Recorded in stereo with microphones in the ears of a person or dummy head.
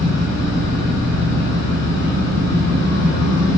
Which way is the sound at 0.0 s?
15° left (ahead or behind).